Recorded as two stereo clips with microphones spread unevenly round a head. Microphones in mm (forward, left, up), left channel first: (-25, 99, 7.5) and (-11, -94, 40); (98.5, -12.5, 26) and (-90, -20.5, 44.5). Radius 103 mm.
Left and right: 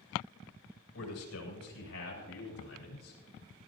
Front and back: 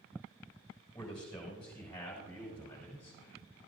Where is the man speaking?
85° left, 7 m; by 3.2 s 80° left, 6 m.